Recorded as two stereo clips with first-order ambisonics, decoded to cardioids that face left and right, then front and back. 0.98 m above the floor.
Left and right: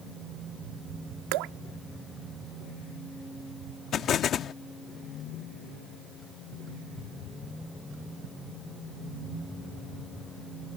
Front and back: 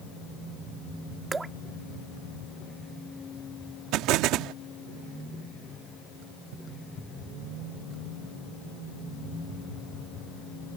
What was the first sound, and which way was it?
Dripping, 100° right.